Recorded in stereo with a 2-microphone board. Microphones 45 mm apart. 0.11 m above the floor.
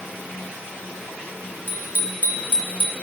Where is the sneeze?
I don't hear a sneeze.